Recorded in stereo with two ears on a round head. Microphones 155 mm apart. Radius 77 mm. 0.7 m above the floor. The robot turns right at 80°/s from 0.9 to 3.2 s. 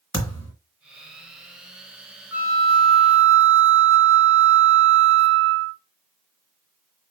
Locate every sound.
0.1 s a thud: 20° left (ahead or behind), 2.5 m
2.3 s a flute: 175° right, 0.6 m; by 5.8 s 105° right, 0.6 m